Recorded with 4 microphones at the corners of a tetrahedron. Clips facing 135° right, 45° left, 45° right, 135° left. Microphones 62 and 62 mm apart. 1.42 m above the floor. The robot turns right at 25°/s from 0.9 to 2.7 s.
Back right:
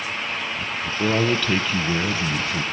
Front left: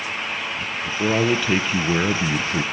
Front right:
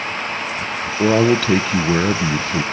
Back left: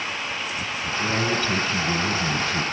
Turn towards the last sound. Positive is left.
turn(degrees=5)